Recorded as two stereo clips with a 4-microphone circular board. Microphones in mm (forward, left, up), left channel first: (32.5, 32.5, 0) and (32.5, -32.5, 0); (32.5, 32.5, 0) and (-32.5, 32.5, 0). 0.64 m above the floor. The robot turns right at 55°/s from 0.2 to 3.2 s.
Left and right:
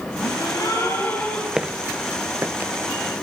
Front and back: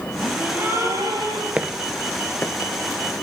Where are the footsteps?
150° right, 0.6 m; by 2.7 s 30° right, 1.1 m.